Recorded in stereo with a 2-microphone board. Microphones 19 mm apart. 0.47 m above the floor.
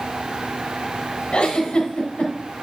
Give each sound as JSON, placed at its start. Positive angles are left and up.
{"t": 1.3, "sound": "a giggle", "side_deg": 80, "distance_m": 3.0}